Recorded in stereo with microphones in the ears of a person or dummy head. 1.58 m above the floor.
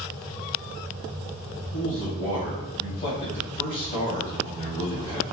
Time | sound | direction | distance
1.7 | a man speaking | 40° left (ahead or behind) | 1.3 m